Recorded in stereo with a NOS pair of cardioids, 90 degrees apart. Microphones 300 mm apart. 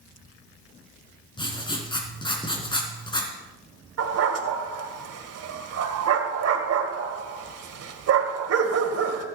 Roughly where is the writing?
Ahead.